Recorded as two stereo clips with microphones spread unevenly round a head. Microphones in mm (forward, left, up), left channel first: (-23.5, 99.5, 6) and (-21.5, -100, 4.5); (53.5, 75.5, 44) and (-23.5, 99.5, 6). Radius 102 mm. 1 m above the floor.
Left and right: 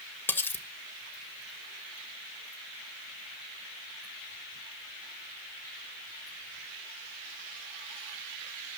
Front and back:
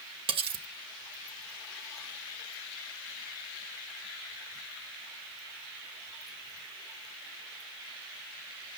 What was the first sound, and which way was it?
Cutlery clinking, 170° left.